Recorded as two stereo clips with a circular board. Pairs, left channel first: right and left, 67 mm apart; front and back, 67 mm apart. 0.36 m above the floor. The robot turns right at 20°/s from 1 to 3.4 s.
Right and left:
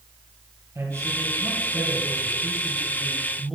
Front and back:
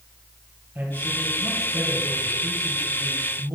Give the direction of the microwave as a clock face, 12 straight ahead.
No microwave in this recording.